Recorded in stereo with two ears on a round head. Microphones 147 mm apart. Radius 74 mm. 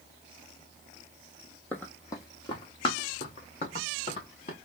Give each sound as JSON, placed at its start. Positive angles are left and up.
{"t": 1.7, "sound": "running footsteps", "side_deg": 10, "distance_m": 1.0}